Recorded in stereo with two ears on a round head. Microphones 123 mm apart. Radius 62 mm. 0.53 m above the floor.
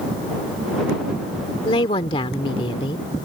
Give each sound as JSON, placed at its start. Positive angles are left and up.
{"t": 1.6, "sound": "a woman speaking", "side_deg": 40}